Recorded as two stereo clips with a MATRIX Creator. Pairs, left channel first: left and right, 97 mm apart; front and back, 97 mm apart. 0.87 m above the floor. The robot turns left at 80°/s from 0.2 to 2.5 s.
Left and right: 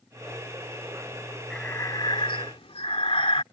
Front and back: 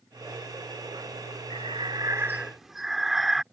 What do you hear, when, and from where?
1.5 s breathing: 175° left; by 3.4 s 95° left